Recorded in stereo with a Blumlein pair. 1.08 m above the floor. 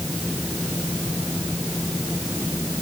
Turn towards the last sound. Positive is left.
turn(degrees=5)